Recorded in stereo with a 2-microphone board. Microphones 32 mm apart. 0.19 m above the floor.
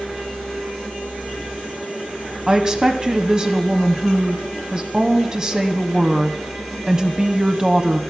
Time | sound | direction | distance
2.5 | a woman speaking | 25° right (ahead or behind) | 1.0 m